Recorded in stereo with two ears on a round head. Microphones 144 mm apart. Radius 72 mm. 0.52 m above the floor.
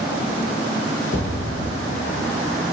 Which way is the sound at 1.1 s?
80° left.